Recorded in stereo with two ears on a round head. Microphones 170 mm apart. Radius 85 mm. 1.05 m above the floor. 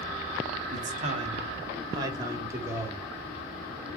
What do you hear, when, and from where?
0.7 s a man speaking: 45° right (ahead or behind), 2 m; by 4.0 s centre (ahead or behind), 3 m